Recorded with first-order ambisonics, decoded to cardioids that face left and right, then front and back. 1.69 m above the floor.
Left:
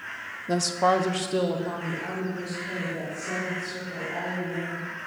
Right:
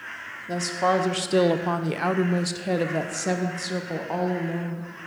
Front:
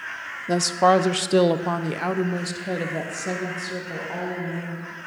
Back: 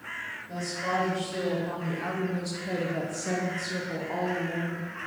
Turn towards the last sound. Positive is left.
turn(degrees=-90)